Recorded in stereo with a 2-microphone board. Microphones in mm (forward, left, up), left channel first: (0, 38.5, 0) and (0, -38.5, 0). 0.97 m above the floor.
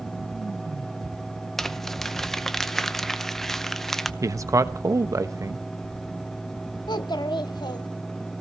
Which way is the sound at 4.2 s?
45° right (ahead or behind).